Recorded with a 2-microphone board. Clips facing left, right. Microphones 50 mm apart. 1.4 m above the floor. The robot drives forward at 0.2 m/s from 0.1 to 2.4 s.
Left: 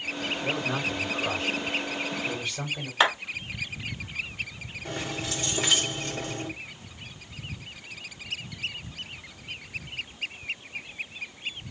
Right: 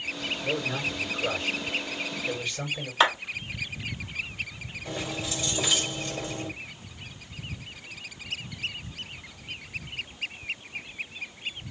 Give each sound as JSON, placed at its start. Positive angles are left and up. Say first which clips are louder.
{"t": 0.4, "sound": "a man speaking", "louder": "even", "side_deg": 70, "distance_m": 3.0}
{"t": 3.0, "sound": "a clap", "louder": "even", "side_deg": 5, "distance_m": 2.5}
{"t": 4.8, "sound": "keys jangling", "louder": "even", "side_deg": 50, "distance_m": 2.5}